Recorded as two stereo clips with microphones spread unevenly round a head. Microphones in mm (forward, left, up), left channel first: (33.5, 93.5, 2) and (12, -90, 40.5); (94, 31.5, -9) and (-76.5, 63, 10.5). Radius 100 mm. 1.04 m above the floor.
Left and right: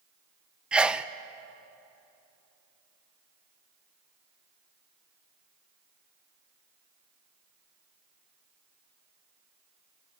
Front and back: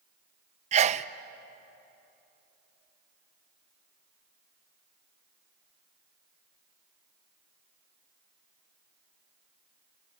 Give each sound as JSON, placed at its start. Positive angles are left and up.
{"t": 0.7, "sound": "a sneeze", "azimuth_deg": 160, "distance_m": 0.6}